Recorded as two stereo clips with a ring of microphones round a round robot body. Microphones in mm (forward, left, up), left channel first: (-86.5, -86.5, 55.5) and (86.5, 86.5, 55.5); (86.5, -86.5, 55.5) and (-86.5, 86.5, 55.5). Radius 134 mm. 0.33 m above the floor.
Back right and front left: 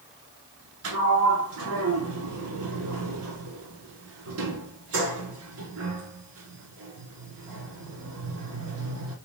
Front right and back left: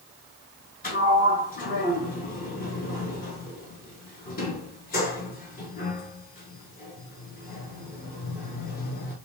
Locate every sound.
0.8 s a sliding door: 10° left, 0.8 m